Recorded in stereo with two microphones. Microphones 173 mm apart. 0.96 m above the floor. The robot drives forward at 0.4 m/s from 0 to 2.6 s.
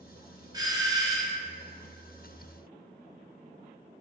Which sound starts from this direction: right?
A doorbell, at 0.5 s.